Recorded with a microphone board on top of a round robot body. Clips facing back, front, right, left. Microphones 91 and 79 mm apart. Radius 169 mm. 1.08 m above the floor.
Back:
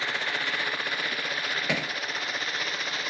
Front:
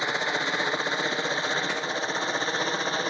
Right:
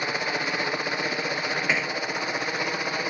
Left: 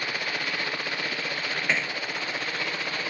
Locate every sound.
0.0 s a helicopter: 45° right; by 3.1 s 30° right
1.7 s hammering: 175° right